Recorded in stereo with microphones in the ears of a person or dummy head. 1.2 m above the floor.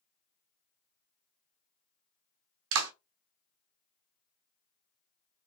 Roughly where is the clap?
Right.